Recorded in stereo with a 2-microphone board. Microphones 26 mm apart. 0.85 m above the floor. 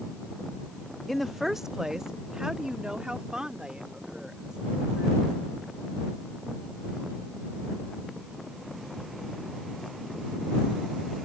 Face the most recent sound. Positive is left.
turn(degrees=-35)  # may be behind; listen again after turning